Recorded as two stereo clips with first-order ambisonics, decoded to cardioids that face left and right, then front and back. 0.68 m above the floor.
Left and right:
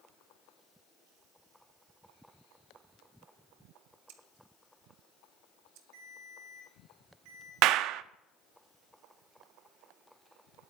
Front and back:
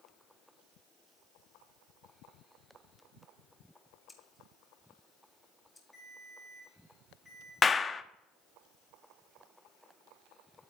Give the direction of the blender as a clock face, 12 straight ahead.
I don't hear a blender.